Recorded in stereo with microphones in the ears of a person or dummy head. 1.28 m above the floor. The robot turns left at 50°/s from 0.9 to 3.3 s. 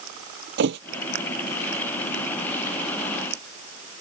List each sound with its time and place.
0.6 s a thud: 60° right (ahead or behind)